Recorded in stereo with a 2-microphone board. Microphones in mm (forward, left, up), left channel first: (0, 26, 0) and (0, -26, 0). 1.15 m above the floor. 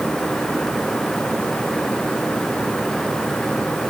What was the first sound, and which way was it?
Only background noise.